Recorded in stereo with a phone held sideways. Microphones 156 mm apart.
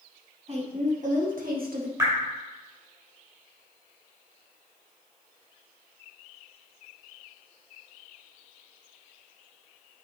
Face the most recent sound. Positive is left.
turn(degrees=-25)  # may be behind; listen again after turning